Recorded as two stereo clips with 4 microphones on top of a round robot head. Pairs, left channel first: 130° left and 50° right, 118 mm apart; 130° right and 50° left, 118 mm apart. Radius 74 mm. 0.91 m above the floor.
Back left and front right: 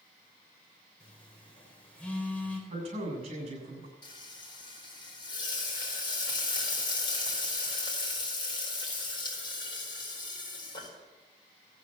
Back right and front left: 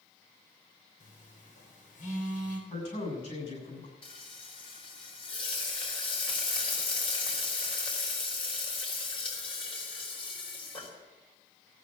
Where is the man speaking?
90° right, 8 m.